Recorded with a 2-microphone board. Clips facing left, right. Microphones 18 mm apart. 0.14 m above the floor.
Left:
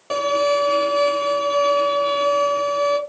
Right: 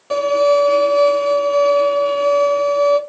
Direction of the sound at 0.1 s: 10° left (ahead or behind).